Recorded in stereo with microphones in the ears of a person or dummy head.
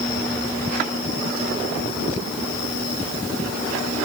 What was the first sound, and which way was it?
Only background noise.